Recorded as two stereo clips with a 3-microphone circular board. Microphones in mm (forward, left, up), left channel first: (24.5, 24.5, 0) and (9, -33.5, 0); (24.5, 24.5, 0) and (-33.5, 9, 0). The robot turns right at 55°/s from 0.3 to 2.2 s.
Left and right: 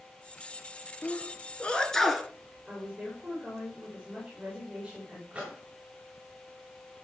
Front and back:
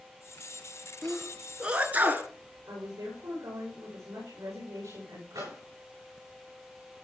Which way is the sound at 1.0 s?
100° left.